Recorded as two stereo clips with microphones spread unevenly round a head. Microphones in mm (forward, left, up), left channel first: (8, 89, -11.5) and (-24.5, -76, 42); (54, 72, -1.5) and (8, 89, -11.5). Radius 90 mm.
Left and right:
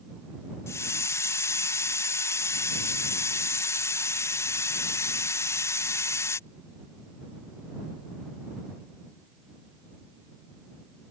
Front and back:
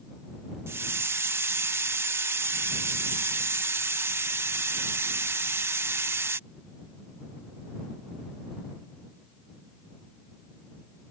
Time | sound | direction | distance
0.7 | a hiss | 170° left | ?